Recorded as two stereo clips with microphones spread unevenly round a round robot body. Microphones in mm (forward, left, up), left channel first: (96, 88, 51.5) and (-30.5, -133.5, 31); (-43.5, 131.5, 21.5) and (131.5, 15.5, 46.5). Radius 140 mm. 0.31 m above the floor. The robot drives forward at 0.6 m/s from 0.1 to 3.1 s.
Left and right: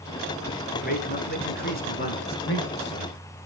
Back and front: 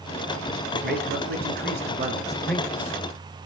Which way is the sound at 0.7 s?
5° left.